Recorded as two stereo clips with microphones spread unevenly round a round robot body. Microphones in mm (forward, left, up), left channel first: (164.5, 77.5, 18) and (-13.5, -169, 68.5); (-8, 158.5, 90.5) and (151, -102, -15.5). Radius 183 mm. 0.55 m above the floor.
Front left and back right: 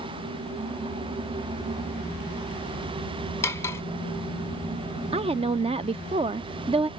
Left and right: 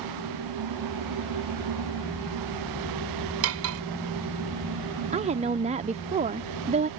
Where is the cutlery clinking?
25° right.